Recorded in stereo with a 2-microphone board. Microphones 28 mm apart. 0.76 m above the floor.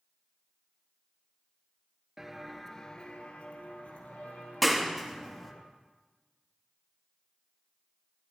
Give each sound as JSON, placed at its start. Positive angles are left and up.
{"t": 2.2, "sound": "footsteps", "side_deg": -15, "distance_m": 0.8}
{"t": 4.6, "sound": "a clap", "side_deg": 0, "distance_m": 0.8}